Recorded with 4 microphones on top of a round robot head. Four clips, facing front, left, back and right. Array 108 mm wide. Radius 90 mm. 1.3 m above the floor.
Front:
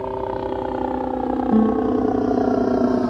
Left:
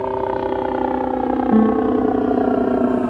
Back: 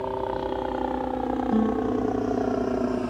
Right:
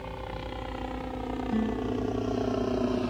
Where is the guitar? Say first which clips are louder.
Left 14 dB, front 7 dB; 65° left.